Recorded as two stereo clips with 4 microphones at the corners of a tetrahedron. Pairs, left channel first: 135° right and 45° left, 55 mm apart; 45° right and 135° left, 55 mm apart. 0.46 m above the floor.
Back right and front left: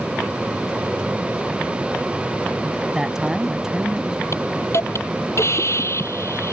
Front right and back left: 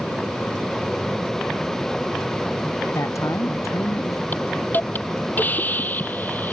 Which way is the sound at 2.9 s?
35° right.